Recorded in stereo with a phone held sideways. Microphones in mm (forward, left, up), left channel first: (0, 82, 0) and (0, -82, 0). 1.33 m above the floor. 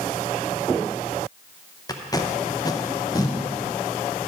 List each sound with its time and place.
1.9 s tape being pulled: 20° left (ahead or behind), 0.6 m